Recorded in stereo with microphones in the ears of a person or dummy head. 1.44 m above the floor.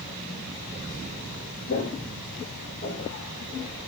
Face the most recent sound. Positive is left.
turn(degrees=50)  # may be behind; listen again after turning